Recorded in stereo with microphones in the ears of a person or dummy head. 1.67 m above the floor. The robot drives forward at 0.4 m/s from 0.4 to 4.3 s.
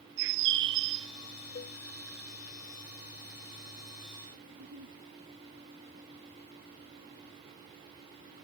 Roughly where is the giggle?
Right.